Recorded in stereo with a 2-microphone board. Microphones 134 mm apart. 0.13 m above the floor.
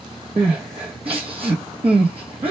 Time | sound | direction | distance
0.4 | crying | 45° right (ahead or behind) | 0.9 m